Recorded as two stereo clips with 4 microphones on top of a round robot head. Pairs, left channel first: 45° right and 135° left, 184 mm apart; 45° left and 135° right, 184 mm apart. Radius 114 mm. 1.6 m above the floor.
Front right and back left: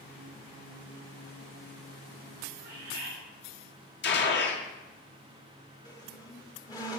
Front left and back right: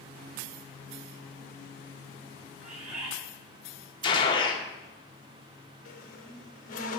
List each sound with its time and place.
2.6 s a bird: 175° left, 5 m
4.0 s a gunshot: 20° right, 1.9 m
5.8 s a squeak: 15° left, 1.2 m